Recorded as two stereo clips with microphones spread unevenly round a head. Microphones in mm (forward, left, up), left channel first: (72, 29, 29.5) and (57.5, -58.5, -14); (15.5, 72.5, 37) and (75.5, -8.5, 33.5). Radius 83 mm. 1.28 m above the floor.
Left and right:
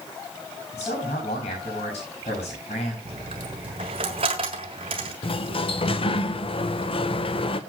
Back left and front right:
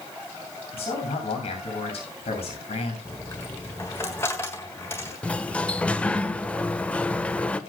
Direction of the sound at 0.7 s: 110° left.